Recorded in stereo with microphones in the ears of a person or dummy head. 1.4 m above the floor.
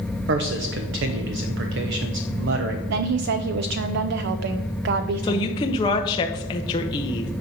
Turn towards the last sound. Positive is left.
turn(degrees=20)  # may be behind; listen again after turning